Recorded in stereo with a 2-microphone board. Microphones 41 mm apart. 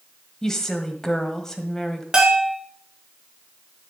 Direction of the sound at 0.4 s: 15° left (ahead or behind).